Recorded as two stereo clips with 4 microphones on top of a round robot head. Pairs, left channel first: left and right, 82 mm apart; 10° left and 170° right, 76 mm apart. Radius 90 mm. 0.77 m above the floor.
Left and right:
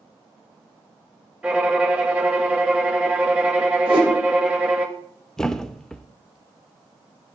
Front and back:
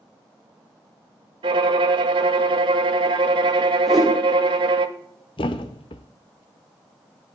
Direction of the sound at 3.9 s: 85° right.